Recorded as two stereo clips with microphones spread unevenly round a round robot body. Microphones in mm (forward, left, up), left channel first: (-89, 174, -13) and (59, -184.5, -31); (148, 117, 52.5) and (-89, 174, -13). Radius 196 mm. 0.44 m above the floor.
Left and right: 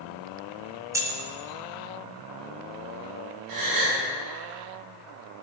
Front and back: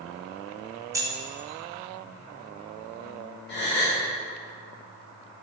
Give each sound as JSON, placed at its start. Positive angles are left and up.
{"t": 0.9, "sound": "keys jangling", "azimuth_deg": -145, "distance_m": 0.7}
{"t": 3.5, "sound": "a gasp", "azimuth_deg": -75, "distance_m": 2.0}